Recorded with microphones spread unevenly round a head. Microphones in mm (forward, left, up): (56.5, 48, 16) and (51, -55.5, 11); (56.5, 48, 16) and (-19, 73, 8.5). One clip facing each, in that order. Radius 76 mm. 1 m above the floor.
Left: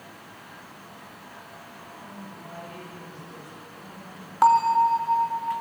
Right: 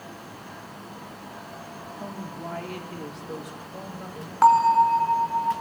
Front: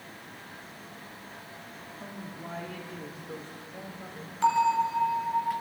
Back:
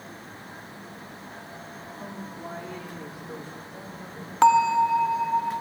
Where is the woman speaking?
120° right, 2 m; by 4.3 s 115° right, 4 m.